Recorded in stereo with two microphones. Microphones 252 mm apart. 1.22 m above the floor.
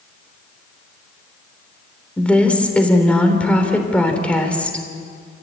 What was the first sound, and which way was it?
A woman speaking, 5° left (ahead or behind).